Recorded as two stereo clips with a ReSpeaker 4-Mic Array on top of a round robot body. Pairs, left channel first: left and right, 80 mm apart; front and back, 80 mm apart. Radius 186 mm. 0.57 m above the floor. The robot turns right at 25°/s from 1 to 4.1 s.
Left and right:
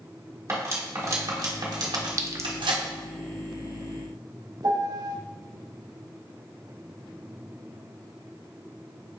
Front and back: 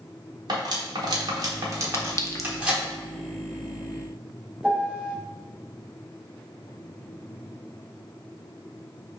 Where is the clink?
50° right, 0.7 m; by 2.5 s 40° right, 0.7 m.